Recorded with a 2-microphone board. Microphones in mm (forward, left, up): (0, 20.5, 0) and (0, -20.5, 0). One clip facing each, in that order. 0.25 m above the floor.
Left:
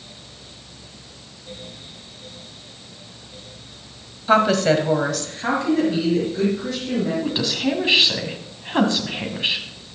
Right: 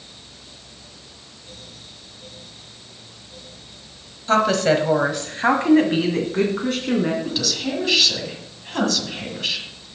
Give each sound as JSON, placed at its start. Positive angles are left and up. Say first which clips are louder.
{"t": 4.3, "sound": "a woman speaking", "louder": "left 1 dB", "side_deg": 15, "distance_m": 1.4}
{"t": 7.2, "sound": "a woman speaking", "louder": "left 3 dB", "side_deg": 25, "distance_m": 2.0}